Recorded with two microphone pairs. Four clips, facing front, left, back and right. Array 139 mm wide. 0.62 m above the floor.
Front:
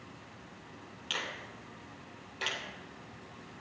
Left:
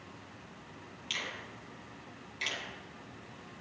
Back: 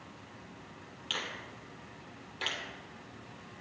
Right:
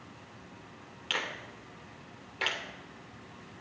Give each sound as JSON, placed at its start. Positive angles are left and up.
{"t": 1.1, "sound": "a finger snap", "azimuth_deg": -90, "distance_m": 2.0}